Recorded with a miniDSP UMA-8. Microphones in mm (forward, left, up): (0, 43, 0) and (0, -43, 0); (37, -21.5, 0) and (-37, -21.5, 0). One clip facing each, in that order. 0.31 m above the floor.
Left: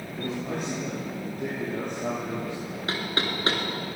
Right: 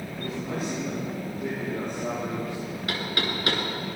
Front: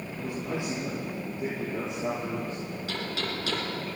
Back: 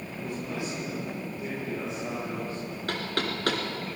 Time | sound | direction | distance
0.2 | a man speaking | 65° left | 8.5 m
2.9 | knocking | 150° left | 3.5 m